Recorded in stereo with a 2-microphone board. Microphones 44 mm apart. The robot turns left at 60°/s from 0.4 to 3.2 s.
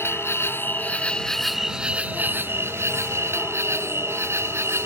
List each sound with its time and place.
0.0 s an insect: 65° left; by 4.9 s 105° right